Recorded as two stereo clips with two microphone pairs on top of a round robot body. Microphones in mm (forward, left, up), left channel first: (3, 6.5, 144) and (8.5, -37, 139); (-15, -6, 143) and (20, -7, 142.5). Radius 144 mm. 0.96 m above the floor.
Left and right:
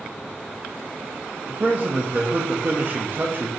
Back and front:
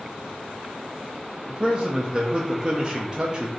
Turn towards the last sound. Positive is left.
turn(degrees=-65)